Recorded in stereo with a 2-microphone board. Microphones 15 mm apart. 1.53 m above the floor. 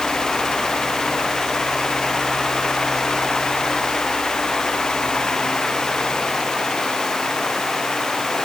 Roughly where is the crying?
No crying in this recording.